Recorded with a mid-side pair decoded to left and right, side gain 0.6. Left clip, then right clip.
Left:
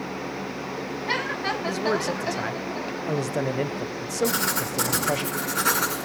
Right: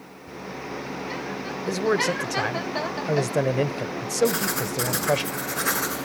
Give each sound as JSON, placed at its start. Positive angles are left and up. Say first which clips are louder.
{"t": 1.7, "sound": "a man speaking", "louder": "right 5 dB", "azimuth_deg": -20, "distance_m": 0.7}
{"t": 4.2, "sound": "writing", "louder": "even", "azimuth_deg": 65, "distance_m": 8.0}